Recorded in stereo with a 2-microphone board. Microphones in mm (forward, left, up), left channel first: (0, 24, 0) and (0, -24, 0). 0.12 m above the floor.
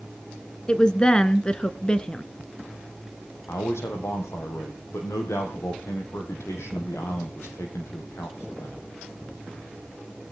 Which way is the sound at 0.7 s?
20° left (ahead or behind).